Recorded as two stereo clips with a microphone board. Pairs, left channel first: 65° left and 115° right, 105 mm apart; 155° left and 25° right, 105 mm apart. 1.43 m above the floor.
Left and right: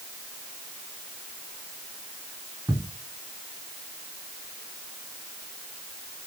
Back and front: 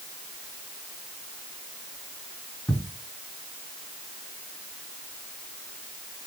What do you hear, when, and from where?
2.7 s ticking: 145° right, 1.6 m